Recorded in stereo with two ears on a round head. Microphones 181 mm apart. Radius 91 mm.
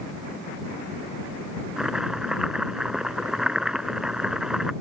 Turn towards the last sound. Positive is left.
turn(degrees=-5)  # may be behind; listen again after turning